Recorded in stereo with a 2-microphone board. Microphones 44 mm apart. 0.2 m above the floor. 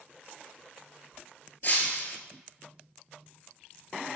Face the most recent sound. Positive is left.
turn(degrees=45)  # may be behind; listen again after turning